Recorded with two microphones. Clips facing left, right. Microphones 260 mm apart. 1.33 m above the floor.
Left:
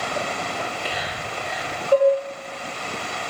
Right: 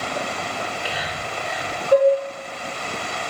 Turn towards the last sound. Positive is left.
turn(degrees=-65)  # may be behind; listen again after turning